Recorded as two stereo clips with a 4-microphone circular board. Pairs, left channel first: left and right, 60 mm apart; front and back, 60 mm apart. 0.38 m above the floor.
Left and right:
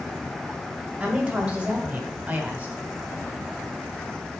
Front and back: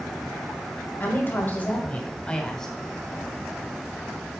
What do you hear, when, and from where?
1.0 s a woman speaking: 25° right, 1.7 m; by 2.8 s 70° right, 1.4 m